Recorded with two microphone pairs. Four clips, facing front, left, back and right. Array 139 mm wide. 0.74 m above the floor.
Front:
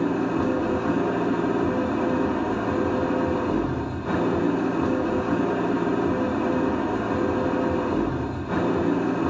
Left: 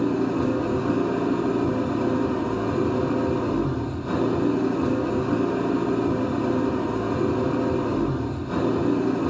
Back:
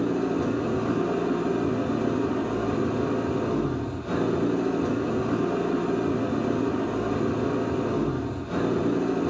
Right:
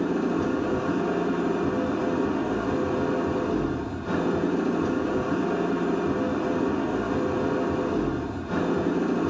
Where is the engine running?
5° right, 2 m.